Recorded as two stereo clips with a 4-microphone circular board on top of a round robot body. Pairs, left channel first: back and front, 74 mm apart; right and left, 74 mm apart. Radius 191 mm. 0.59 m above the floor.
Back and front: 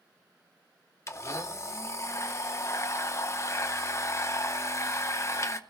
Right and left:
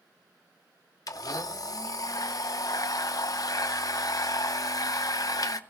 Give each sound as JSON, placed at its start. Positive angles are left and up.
{"t": 1.1, "sound": "a blender", "azimuth_deg": -130, "distance_m": 0.7}